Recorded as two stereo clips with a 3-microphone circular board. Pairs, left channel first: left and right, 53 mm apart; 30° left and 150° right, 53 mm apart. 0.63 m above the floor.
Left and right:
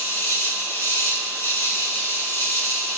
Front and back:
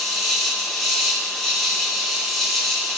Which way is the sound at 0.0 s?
115° left.